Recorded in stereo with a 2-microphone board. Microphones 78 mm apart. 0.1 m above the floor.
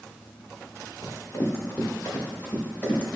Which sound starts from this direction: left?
Running footsteps, at 1.0 s.